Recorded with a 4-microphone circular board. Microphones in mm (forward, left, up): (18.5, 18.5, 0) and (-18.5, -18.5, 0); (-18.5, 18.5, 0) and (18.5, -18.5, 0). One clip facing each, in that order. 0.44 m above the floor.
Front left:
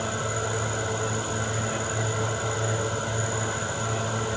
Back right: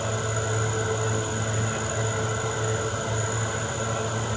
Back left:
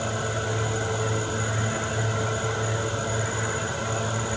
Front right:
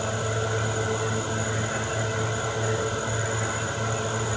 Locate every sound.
Only background noise.